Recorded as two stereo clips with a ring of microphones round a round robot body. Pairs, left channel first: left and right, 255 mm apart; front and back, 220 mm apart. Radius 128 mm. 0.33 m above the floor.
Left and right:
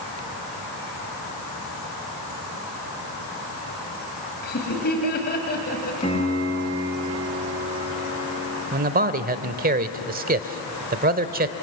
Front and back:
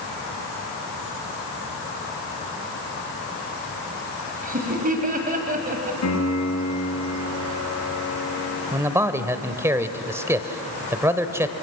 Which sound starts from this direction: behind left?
Laughter, at 4.4 s.